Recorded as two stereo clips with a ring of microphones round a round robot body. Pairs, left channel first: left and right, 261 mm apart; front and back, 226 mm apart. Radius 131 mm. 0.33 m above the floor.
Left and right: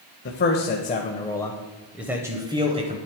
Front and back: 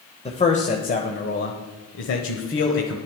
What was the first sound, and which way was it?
A man speaking, 55° left.